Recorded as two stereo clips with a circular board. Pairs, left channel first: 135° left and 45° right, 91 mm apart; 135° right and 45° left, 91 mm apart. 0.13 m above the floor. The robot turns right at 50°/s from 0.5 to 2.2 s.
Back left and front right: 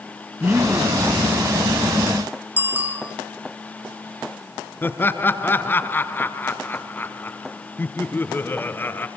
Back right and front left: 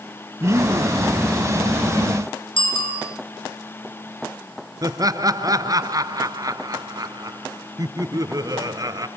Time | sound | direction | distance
0.4 | a man speaking | 15° left | 1.3 m
2.6 | a bicycle bell | 115° right | 5.5 m
4.8 | laughter | 75° left | 1.5 m